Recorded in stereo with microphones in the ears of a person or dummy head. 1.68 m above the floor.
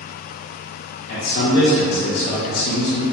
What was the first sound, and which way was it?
A man speaking, 55° left (ahead or behind).